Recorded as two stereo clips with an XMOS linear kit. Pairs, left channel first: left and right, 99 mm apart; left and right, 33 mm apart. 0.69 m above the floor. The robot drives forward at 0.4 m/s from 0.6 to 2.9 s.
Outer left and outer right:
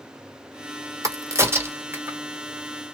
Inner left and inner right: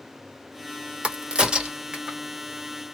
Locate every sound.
1.0 s a crack: 35° right (ahead or behind), 0.7 m; by 2.2 s 20° right (ahead or behind), 1.1 m